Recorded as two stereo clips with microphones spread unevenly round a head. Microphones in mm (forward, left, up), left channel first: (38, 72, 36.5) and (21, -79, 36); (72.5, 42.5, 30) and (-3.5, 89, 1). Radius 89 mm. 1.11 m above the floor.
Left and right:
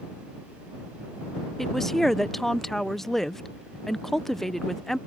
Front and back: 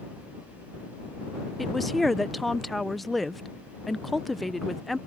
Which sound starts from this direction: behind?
A woman speaking, at 1.6 s.